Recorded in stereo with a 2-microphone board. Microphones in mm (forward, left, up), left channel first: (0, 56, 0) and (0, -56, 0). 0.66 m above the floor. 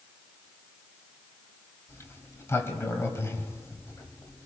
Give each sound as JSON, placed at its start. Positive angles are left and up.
{"t": 1.9, "sound": "a sliding door", "side_deg": 20, "distance_m": 2.0}